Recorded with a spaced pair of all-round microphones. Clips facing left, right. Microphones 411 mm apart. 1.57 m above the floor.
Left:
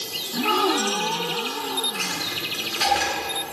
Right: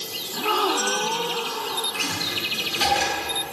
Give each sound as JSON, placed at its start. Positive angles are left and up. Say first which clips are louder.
{"t": 0.3, "sound": "a gasp", "louder": "left 3 dB", "side_deg": 40, "distance_m": 0.8}
{"t": 1.9, "sound": "a dropped coin", "louder": "right 1 dB", "side_deg": -55, "distance_m": 8.0}